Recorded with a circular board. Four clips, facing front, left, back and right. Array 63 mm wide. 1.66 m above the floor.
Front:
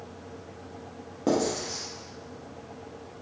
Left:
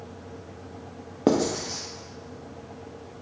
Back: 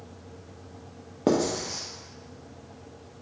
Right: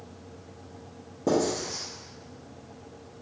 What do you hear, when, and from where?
1.3 s writing: 110° left, 0.7 m